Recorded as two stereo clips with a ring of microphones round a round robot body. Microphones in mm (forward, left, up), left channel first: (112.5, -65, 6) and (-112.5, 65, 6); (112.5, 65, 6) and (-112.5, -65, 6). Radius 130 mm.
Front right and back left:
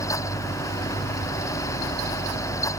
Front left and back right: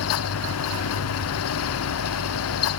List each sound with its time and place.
Only background noise.